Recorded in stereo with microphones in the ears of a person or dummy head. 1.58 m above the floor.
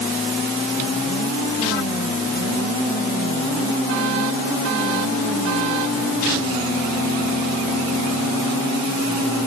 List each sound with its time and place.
Only background noise.